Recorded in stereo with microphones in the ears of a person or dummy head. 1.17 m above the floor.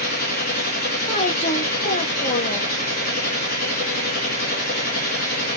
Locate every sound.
0.0 s a machine running: 45° left (ahead or behind), 0.7 m
1.1 s a woman speaking: 40° left (ahead or behind), 1.3 m